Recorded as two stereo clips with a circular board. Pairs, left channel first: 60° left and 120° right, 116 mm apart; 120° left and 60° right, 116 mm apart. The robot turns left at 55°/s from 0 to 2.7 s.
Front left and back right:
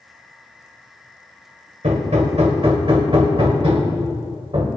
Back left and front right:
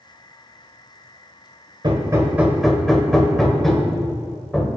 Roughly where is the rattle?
I don't hear a rattle.